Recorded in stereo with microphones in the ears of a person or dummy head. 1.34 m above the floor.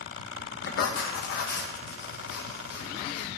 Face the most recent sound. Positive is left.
turn(degrees=60)  # may be behind; listen again after turning